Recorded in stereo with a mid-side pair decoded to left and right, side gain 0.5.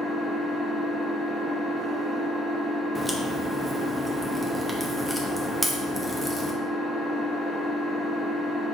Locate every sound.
0.0 s an engine running: 30° right, 0.8 m
3.0 s a crack: straight ahead, 0.6 m